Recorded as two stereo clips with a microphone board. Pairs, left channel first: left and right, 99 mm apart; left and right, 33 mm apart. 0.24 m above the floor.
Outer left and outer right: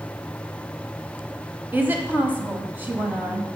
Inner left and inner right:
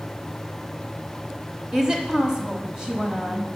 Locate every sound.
1.7 s a woman speaking: 20° right (ahead or behind), 1.1 m